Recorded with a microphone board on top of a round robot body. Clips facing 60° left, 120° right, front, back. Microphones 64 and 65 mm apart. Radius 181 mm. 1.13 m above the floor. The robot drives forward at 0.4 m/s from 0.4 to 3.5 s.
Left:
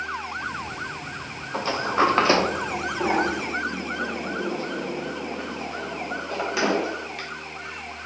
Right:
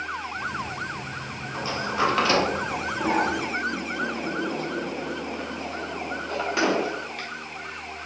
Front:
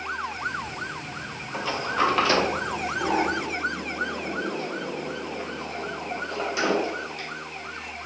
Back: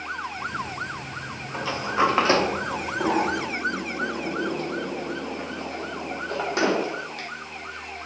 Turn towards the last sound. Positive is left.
turn(degrees=145)